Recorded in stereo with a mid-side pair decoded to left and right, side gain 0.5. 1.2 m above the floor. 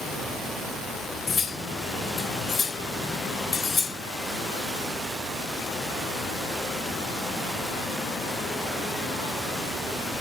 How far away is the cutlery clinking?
About 3.5 m.